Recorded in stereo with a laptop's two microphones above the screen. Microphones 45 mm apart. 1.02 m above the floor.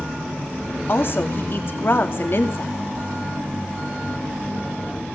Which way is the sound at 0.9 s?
50° left (ahead or behind).